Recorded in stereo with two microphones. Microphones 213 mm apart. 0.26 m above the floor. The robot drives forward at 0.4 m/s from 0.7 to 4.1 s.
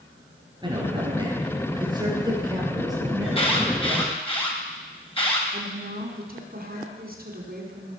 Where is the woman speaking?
45° right (ahead or behind), 2.5 m.